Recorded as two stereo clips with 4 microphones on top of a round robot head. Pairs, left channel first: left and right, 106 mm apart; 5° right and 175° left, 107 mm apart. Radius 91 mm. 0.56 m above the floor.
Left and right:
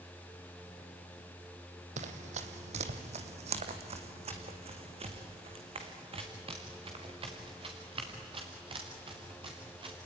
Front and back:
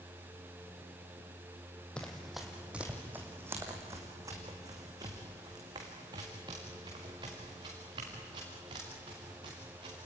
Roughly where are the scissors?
No scissors in this recording.